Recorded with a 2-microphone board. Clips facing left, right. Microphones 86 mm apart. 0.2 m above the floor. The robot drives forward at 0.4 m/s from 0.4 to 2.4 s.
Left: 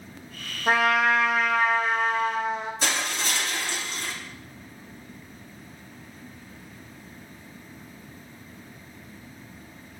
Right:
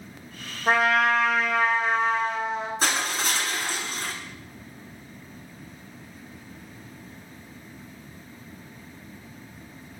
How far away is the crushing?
About 1.7 m.